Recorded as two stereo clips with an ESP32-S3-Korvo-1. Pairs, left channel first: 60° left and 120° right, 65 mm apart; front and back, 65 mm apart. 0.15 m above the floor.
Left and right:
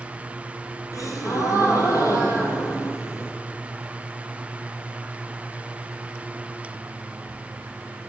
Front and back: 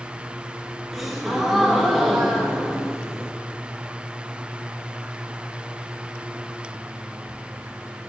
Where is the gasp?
90° left, 0.9 m.